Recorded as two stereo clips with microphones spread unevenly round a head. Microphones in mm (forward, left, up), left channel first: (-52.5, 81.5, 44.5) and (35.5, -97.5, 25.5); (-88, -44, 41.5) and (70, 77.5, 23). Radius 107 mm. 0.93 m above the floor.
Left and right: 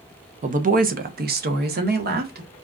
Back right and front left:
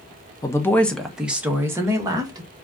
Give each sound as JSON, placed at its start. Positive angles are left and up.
{"t": 0.4, "sound": "a woman speaking", "azimuth_deg": -70, "distance_m": 0.7}